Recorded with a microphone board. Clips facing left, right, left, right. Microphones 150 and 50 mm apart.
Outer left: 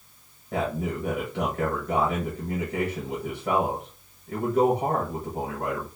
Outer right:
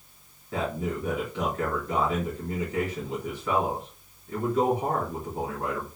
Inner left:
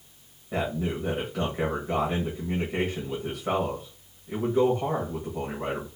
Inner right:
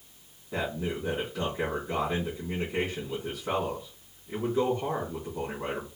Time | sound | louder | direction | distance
0.5 | a man speaking | outer left 2 dB, inner left 3 dB | 60° left (ahead or behind) | 1.6 m